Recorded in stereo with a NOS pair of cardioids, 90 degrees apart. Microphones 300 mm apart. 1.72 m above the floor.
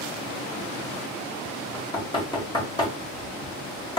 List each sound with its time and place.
1.7 s knocking: 15° left, 1.4 m